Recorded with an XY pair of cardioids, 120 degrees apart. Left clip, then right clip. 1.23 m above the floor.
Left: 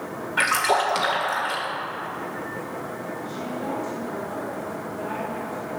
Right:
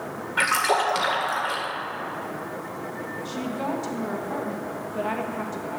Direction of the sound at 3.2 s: 70° right.